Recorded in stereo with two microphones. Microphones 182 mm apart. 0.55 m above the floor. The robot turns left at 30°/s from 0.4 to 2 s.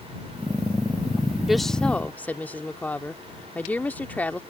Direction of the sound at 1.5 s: Centre (ahead or behind).